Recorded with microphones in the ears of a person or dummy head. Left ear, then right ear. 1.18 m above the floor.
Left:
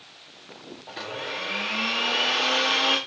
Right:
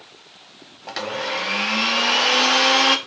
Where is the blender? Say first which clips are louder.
Right 7 dB; 50° right (ahead or behind), 0.8 m.